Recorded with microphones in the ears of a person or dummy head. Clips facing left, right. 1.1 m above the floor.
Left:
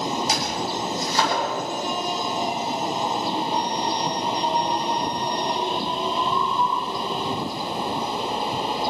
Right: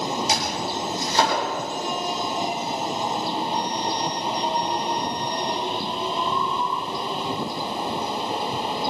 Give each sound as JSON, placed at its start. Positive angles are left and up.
{"t": 0.3, "sound": "chopping", "side_deg": -55, "distance_m": 10.0}